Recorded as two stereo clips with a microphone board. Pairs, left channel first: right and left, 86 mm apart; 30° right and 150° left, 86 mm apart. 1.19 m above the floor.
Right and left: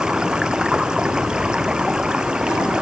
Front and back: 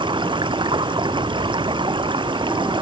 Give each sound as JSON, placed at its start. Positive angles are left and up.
{"t": 0.0, "sound": "running water", "azimuth_deg": 170}